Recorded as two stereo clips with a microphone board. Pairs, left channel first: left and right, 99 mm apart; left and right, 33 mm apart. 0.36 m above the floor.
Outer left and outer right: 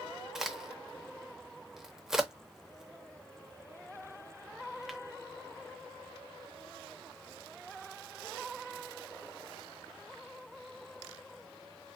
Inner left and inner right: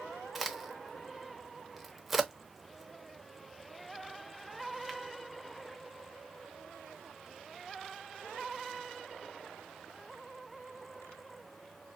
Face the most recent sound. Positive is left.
turn(degrees=-5)  # may be behind; listen again after turning